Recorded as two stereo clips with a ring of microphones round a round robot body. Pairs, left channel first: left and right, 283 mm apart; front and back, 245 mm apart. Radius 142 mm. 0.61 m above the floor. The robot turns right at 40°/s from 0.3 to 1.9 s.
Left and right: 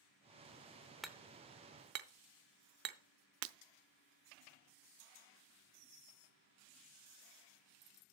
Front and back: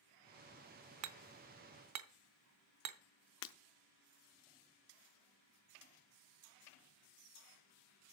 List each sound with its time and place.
1.0 s hammering: straight behind, 0.7 m; by 3.0 s 145° right, 0.7 m
3.4 s breaking glass: 45° right, 0.6 m